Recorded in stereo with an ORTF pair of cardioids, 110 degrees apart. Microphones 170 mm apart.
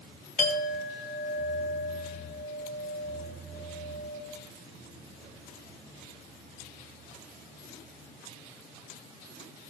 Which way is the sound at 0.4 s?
45° left.